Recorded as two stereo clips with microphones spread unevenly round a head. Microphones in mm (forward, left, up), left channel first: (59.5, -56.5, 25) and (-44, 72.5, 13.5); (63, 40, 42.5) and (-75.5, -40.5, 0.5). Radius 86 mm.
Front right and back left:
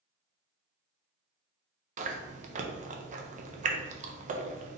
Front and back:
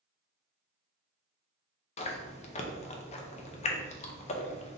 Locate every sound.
2.0 s chewing: 90° left, 0.6 m